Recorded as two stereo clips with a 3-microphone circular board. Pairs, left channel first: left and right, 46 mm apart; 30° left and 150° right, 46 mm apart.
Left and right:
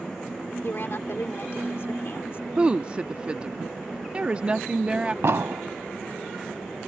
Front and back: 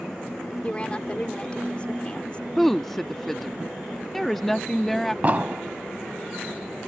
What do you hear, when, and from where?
0.6 s a woman speaking: 90° left
2.6 s a woman speaking: 50° right
5.2 s an explosion: 100° right